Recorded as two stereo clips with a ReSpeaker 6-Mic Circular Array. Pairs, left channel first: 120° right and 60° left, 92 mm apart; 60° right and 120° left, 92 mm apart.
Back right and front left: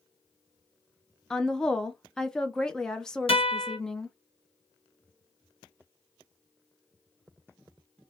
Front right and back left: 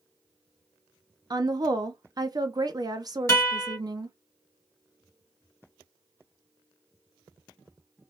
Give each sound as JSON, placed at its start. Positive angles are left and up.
{"t": 1.3, "sound": "a woman speaking", "azimuth_deg": 155, "distance_m": 0.7}
{"t": 3.3, "sound": "a guitar", "azimuth_deg": -120, "distance_m": 1.6}